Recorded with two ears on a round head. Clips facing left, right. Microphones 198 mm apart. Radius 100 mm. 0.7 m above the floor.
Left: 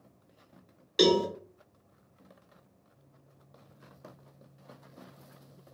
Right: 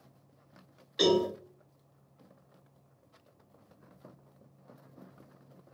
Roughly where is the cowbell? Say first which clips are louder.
Left 2 dB; left.